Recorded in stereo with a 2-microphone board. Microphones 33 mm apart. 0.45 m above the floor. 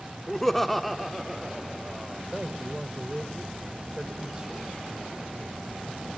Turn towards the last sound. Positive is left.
turn(degrees=-20)  # may be behind; listen again after turning